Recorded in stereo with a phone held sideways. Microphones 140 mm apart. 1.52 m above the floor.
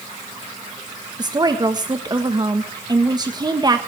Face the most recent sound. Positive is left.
turn(degrees=-30)  # may be behind; listen again after turning